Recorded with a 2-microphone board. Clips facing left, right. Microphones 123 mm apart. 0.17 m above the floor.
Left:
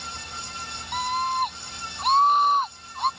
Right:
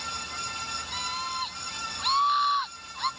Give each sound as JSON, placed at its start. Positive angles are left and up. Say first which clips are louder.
{"t": 0.9, "sound": "a scream", "louder": "left 10 dB", "side_deg": 50}